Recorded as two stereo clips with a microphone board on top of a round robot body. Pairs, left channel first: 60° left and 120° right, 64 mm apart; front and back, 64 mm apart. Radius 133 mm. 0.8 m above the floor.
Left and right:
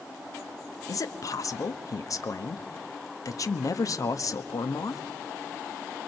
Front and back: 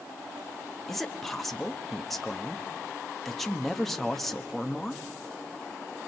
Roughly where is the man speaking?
Left.